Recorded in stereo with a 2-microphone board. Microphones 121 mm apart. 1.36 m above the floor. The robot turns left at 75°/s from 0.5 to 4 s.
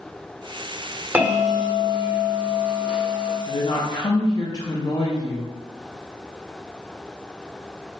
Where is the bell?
30° right, 1.1 m; by 3.4 s 160° left, 1.1 m.